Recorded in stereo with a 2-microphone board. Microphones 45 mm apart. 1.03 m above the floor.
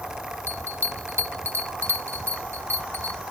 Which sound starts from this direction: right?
A bell, at 0.5 s.